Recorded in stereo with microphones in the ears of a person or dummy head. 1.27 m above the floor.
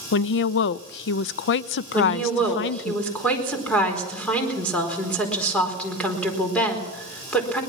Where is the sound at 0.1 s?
75° left (ahead or behind), 0.6 m.